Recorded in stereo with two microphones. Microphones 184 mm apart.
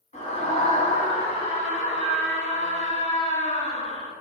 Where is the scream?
40° left (ahead or behind), 1.4 m.